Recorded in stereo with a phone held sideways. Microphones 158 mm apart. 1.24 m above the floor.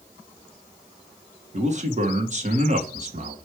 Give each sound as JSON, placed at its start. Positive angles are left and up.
{"t": 1.5, "sound": "a man speaking", "side_deg": -45, "distance_m": 1.4}